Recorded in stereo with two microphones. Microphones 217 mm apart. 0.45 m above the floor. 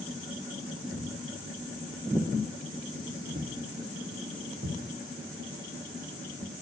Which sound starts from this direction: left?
Footsteps, at 0.9 s.